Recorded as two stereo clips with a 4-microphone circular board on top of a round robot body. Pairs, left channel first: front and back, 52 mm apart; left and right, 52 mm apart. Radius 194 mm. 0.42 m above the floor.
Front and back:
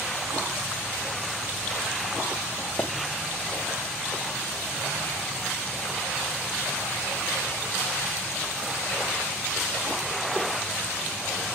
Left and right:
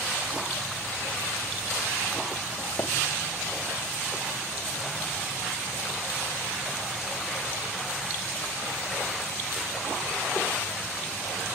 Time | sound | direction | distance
2.8 | tapping | 50° left | 1.4 m